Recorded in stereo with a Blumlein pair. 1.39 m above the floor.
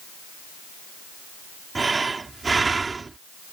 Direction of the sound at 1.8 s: 15° right.